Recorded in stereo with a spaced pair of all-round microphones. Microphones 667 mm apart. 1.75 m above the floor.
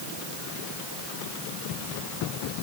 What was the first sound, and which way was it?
Only background noise.